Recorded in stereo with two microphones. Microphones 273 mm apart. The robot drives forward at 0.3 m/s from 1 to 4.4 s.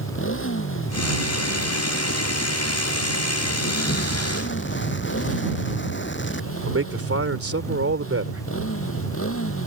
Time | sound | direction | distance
0.0 | a motorcycle | 45° left (ahead or behind) | ?
3.9 | an explosion | 40° left (ahead or behind) | ?
6.7 | a man speaking | 50° right (ahead or behind) | ?